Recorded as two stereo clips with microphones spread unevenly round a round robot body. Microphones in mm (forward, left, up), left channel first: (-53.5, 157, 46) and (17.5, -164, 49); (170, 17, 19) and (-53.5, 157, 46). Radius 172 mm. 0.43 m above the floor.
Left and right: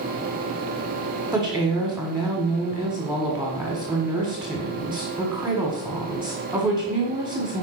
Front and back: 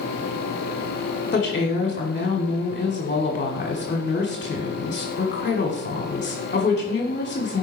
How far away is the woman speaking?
About 1.7 m.